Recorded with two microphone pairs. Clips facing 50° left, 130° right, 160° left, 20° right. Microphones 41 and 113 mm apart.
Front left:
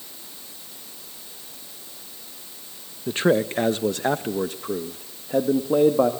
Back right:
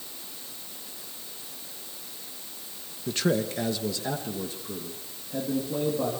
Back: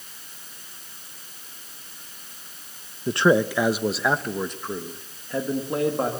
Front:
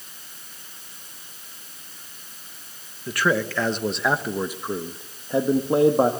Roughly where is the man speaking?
Left.